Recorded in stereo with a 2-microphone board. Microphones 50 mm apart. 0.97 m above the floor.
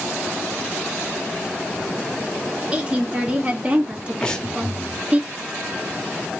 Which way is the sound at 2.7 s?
20° right (ahead or behind).